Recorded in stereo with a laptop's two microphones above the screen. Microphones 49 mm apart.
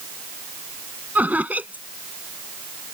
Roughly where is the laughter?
Right.